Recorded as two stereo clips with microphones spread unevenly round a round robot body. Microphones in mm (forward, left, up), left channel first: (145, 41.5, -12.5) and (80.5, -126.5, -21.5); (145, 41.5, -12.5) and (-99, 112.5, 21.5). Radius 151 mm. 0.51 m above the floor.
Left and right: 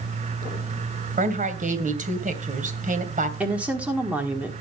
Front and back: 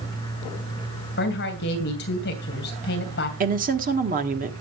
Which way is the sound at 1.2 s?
70° right.